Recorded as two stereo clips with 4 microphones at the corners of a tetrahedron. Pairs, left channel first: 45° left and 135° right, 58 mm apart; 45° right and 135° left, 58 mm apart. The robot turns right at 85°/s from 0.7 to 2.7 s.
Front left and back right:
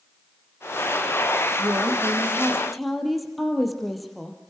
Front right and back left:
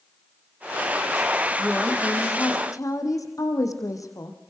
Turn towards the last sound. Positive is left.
turn(degrees=-45)